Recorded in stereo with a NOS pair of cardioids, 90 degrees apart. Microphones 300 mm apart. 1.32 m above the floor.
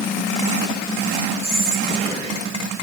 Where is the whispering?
20° right, 8.5 m.